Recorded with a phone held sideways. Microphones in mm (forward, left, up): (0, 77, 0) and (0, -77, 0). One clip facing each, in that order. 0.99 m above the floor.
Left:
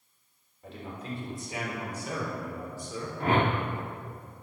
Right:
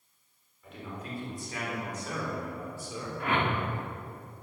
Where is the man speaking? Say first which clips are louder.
Left 2 dB; 35° left (ahead or behind), 3.5 m; by 3.1 s 15° right (ahead or behind), 3.5 m.